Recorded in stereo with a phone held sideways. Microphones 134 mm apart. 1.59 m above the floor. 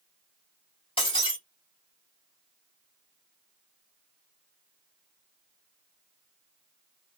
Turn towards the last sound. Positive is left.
turn(degrees=40)  # may be behind; listen again after turning